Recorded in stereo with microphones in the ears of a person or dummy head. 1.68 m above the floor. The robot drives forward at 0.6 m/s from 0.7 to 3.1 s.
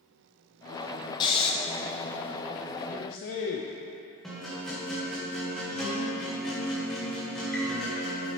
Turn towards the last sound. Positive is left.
turn(degrees=5)  # may be behind; listen again after turning